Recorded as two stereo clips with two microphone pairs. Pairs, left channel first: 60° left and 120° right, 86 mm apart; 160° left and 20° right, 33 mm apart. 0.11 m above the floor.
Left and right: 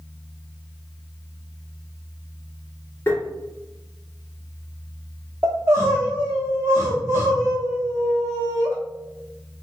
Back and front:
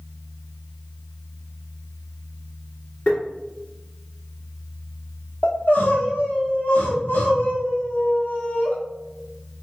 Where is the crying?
Straight behind, 1.5 m.